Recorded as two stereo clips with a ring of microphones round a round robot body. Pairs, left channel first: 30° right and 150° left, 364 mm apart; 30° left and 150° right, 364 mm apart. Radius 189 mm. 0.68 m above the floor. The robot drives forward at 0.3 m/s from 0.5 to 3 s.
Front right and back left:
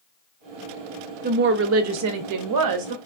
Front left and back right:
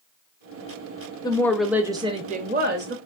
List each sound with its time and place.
1.2 s a woman speaking: 100° left, 0.5 m; by 3.0 s 155° left, 0.8 m